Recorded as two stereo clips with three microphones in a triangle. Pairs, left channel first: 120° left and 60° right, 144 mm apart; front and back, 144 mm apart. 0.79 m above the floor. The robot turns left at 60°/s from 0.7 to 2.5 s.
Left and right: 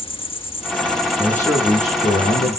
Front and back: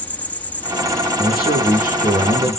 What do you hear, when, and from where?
0.0 s an insect: 75° left, 1.2 m; by 2.6 s 30° right, 1.2 m
1.2 s a man speaking: 155° right, 8.5 m; by 2.6 s 125° left, 8.5 m